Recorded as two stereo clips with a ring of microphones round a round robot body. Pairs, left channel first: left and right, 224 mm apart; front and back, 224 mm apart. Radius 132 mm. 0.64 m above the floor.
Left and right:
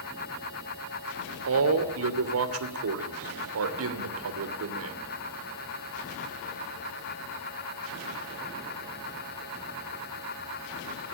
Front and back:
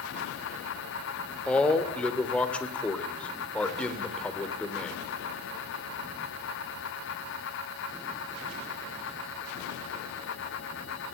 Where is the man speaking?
85° right, 2.5 m.